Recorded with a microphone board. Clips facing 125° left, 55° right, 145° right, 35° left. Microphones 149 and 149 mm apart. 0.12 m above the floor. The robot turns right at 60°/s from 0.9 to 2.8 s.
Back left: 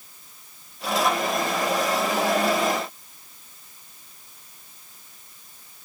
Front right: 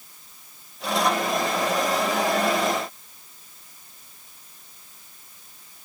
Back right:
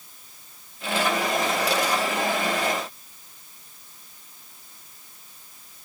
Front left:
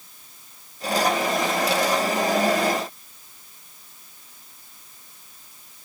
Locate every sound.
Only background noise.